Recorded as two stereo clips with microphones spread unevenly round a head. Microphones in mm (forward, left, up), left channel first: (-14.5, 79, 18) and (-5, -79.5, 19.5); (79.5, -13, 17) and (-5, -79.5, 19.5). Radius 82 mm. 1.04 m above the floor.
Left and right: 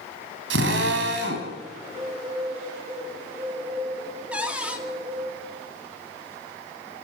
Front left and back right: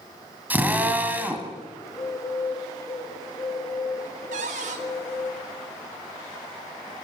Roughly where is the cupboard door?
Behind.